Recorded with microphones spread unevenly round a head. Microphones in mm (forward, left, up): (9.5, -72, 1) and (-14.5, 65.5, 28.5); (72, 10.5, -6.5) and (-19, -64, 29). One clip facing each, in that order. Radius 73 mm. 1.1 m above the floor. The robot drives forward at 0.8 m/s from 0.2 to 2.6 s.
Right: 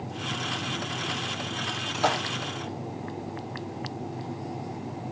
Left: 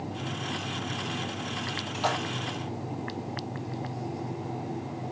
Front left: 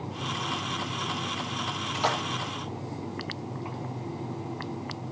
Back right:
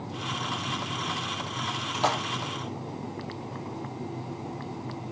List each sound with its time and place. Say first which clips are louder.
1.9 s a splash: right 3 dB, back right 1 dB; 100° right, 2 m; by 2.2 s 105° right, 2.5 m